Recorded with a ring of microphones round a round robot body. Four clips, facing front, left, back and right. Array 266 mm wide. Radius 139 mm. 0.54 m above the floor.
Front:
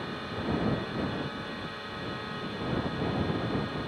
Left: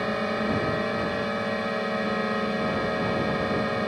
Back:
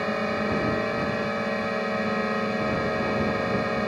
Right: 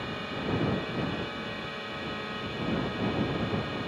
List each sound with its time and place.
0.0 s a drone: 140° left